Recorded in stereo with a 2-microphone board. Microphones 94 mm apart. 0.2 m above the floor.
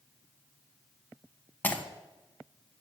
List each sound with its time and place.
1.6 s breaking glass: 20° left (ahead or behind), 1.1 m